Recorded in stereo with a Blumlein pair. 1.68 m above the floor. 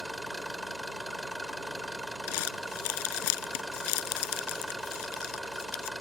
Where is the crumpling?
50° left.